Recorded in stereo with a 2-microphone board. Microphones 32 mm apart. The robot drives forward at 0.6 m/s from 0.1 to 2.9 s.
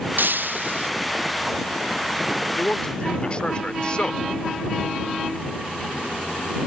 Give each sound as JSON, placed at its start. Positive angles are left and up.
{"t": 0.2, "sound": "breaking glass", "side_deg": -75}
{"t": 2.5, "sound": "a man speaking", "side_deg": 30}